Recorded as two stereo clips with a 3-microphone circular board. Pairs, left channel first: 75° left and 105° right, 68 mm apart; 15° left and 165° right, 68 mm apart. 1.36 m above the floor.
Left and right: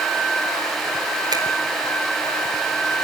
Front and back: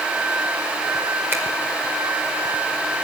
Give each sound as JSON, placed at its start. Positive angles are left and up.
{"t": 1.3, "sound": "a finger snap", "azimuth_deg": -110, "distance_m": 4.0}